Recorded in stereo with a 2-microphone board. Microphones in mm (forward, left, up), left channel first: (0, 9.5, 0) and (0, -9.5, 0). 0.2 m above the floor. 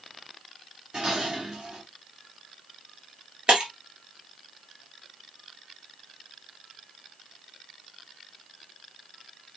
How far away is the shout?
No shout in this recording.